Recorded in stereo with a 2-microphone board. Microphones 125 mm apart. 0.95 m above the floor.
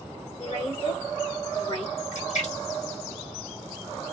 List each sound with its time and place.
0.4 s a woman speaking: 45° left (ahead or behind), 1.3 m
2.1 s a splash: 70° left (ahead or behind), 1.5 m